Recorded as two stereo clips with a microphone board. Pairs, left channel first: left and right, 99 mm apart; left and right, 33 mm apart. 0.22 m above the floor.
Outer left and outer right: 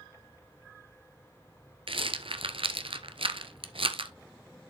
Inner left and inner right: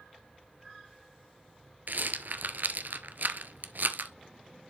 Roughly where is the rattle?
Right.